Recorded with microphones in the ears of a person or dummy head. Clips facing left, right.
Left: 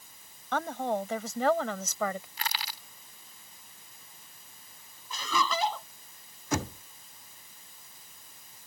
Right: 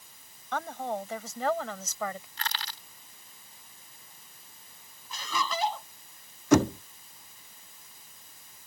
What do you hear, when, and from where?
0.5 s a woman speaking: 65° left (ahead or behind)
2.4 s crushing: 10° left (ahead or behind)
5.1 s laughter: 75° left (ahead or behind)
6.5 s knocking: 55° right (ahead or behind)